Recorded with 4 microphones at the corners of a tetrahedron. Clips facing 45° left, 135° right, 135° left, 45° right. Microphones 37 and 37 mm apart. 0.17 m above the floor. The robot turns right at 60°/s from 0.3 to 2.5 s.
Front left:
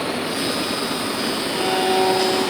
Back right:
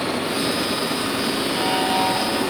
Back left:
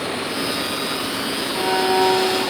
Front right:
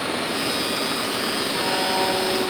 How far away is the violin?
About 1.0 m.